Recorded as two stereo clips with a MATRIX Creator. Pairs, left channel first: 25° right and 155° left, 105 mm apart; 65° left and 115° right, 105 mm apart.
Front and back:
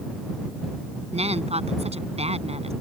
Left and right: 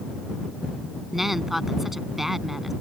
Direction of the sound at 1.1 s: 160° left.